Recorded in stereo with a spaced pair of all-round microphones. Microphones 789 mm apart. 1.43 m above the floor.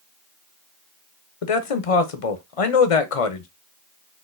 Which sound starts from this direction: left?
A man speaking, at 1.4 s.